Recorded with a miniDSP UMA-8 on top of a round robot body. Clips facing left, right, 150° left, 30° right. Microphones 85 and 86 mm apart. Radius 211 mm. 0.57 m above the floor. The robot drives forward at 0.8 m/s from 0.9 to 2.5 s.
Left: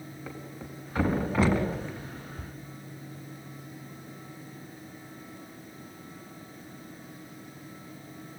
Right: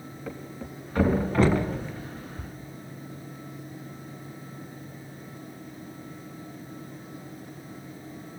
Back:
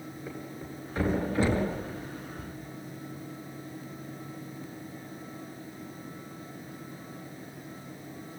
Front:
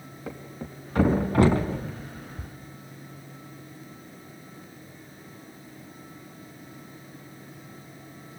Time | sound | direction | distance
0.3 | a thud | 5° left | 3 m